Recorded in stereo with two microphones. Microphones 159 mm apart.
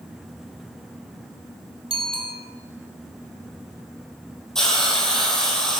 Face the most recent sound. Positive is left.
turn(degrees=5)  # may be behind; listen again after turning